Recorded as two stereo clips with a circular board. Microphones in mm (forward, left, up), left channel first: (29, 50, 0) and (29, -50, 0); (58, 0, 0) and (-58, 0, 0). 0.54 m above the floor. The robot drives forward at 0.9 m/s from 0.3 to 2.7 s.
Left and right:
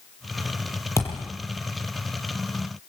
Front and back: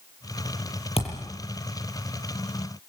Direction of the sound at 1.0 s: 30° left.